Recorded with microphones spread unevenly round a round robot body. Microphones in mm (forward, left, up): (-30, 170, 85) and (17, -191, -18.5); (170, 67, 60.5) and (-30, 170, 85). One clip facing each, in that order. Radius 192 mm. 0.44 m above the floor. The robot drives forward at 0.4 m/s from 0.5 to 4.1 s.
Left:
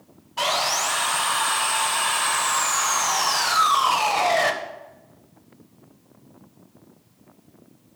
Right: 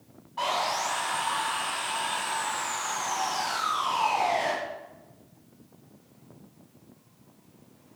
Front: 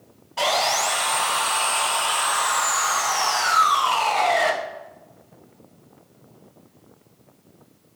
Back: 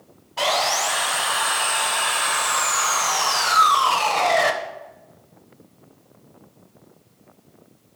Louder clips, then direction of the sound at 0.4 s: Left 4 dB, even; 60° left.